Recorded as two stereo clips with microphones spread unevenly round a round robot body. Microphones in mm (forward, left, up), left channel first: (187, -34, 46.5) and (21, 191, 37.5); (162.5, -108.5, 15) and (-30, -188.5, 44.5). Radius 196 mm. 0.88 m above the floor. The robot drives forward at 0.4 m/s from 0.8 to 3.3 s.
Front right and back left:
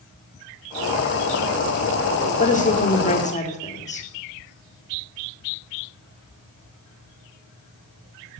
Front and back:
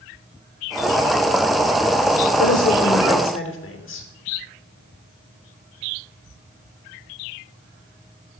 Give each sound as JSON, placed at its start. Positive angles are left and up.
{"t": 2.4, "sound": "a woman speaking", "azimuth_deg": 10, "distance_m": 2.5}